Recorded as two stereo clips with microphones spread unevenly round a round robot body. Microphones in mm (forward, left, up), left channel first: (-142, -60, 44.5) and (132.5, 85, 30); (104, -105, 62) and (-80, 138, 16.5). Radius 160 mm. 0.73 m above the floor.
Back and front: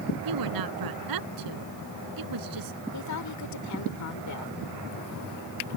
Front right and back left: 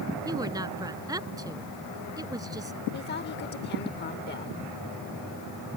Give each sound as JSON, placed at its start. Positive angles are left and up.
{"t": 0.2, "sound": "a woman speaking", "azimuth_deg": 50}
{"t": 2.9, "sound": "a woman speaking", "azimuth_deg": -115}